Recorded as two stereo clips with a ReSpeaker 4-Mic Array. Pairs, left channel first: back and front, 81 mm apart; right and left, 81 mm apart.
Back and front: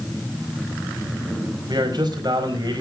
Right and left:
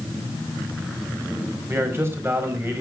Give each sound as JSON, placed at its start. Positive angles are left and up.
{"t": 1.7, "sound": "a man speaking", "azimuth_deg": 30, "distance_m": 4.5}